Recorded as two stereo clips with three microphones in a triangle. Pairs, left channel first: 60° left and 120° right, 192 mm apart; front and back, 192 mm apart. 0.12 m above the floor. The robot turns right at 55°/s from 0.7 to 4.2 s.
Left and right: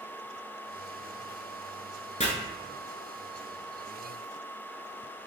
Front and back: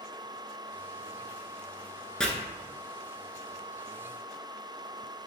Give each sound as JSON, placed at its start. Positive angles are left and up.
{"t": 2.2, "sound": "chopping", "azimuth_deg": 85, "distance_m": 1.0}